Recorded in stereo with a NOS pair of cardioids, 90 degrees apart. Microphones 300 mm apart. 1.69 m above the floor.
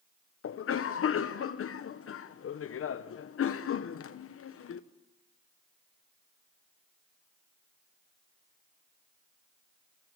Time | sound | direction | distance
0.4 | a cough | 50° left | 1.2 m